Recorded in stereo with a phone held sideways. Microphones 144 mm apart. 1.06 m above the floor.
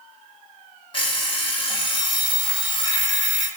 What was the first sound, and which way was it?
An alarm clock, 35° left (ahead or behind).